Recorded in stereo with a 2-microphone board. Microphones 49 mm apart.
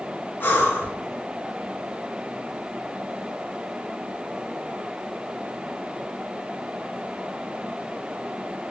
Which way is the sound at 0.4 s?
50° left (ahead or behind).